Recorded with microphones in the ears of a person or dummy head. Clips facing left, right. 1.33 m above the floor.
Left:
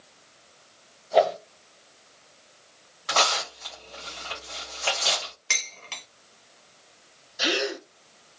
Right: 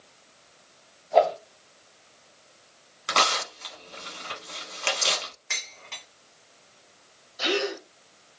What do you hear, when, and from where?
1.1 s a whoosh: 15° left (ahead or behind), 2 m
3.1 s tearing paper: 35° right (ahead or behind), 1.5 m
5.5 s dishes clattering: 40° left (ahead or behind), 1.1 m
7.4 s a gasp: 15° left (ahead or behind), 1.3 m